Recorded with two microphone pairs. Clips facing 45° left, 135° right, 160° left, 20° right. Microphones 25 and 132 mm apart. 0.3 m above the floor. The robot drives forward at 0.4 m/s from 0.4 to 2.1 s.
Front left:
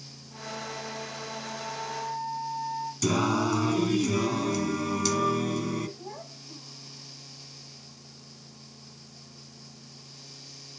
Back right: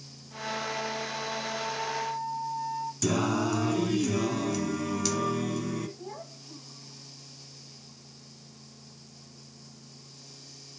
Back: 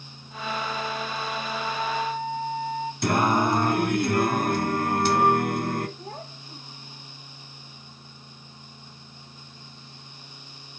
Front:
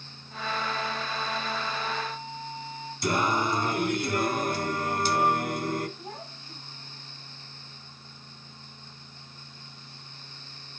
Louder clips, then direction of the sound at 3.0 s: Front left 2 dB, back 4 dB; 130° left.